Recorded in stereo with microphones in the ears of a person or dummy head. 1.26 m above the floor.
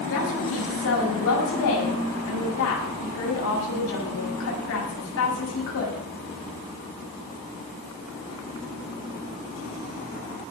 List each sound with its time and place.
0.1 s a woman speaking: 70° left (ahead or behind), 7 m